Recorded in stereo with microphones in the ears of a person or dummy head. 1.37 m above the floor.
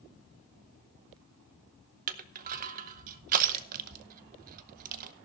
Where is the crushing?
45° right (ahead or behind), 0.8 m.